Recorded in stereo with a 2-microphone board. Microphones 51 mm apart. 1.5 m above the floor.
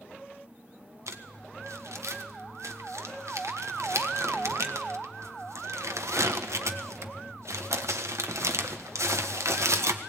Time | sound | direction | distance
1.1 | crumpling | 75° right (ahead or behind) | 1.3 m